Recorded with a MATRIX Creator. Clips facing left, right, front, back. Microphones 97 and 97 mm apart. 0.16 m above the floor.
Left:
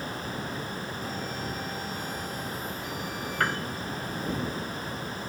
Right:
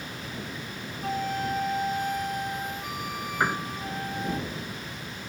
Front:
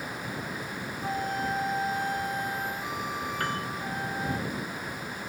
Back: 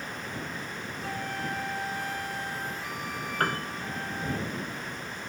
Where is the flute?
65° right.